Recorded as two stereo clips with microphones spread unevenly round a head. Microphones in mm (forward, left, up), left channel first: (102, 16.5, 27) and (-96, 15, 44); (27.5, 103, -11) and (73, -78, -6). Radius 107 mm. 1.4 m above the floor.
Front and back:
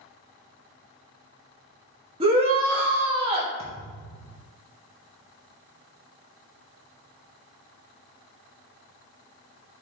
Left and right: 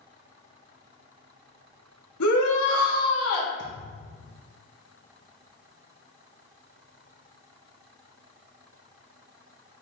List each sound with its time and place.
2.2 s a shout: 115° left, 2.5 m
3.6 s a thud: 125° left, 3 m